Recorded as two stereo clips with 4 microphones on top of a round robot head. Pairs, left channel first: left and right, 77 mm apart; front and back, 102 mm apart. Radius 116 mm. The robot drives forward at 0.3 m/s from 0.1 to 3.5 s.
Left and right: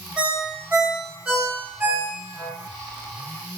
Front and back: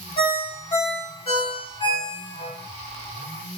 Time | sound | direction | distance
0.2 | a ringtone | 20° right | 2 m